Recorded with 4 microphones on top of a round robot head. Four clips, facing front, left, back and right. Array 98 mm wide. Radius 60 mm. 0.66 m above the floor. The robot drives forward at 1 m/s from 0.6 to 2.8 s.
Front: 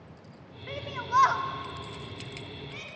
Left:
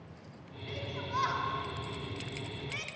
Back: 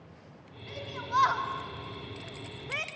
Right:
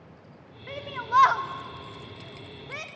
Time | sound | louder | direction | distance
0.7 | a shout | right 10 dB, front 4 dB | 55° right | 1.5 m